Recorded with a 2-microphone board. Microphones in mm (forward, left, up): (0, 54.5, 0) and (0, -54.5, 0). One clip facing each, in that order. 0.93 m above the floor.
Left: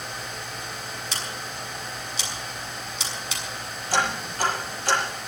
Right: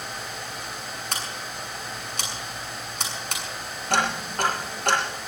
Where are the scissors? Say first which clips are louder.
Right 1 dB; 50° right (ahead or behind), 6.5 m.